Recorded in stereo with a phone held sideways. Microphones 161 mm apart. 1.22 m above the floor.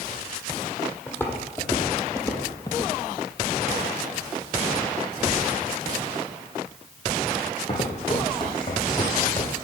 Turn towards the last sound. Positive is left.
turn(degrees=25)  # may be behind; listen again after turning